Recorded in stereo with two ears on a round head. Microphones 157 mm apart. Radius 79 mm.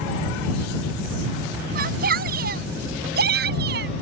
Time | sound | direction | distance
1.8 | a shout | 55° right (ahead or behind) | ?